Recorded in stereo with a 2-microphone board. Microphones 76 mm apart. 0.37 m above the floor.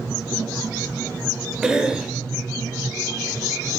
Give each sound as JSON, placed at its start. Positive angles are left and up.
{"t": 1.6, "sound": "a cough", "side_deg": -10, "distance_m": 1.2}